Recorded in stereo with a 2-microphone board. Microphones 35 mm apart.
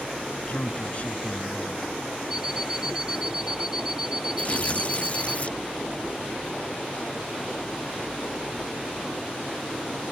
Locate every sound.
0.3 s a man speaking: 40° left (ahead or behind)
2.3 s an alarm clock: 20° right (ahead or behind)
4.4 s tearing paper: 45° left (ahead or behind)